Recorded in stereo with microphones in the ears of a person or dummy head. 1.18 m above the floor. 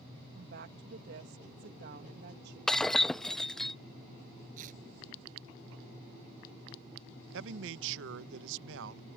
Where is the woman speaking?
55° right (ahead or behind).